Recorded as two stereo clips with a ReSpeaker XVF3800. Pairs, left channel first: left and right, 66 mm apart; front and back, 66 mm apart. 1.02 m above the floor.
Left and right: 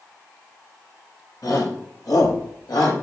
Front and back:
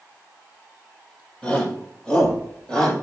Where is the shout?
75° left, 5.5 m; by 2.9 s 80° left, 6 m.